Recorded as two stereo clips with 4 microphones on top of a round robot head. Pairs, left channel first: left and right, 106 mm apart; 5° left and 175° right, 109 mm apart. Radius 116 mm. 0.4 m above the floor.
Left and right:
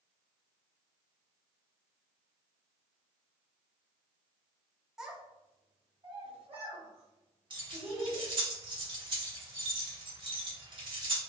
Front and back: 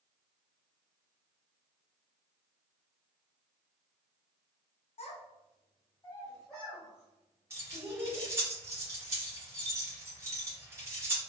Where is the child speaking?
5° right, 0.8 m; by 8.3 s 115° right, 1.4 m.